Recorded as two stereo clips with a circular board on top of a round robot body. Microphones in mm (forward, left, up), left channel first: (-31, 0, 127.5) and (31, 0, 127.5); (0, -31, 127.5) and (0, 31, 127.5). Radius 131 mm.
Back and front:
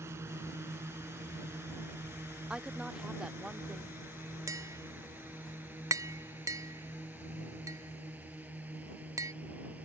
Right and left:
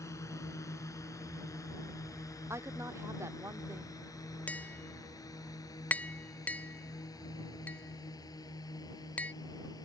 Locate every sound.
0.0 s a drone: 50° right; by 9.8 s 65° right
2.5 s a woman speaking: 75° left
4.5 s tapping: 25° right